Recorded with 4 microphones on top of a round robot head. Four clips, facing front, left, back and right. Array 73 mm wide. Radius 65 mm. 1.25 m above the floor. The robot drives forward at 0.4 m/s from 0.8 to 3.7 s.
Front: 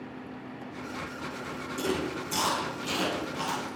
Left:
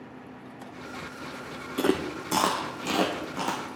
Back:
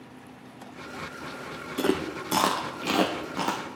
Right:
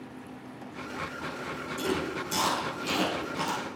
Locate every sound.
1.8 s chewing: 125° left, 0.6 m; by 3.6 s 160° left, 1.2 m